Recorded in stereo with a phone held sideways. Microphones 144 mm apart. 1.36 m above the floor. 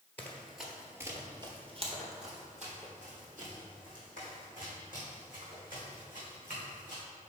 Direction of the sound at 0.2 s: 15° left (ahead or behind).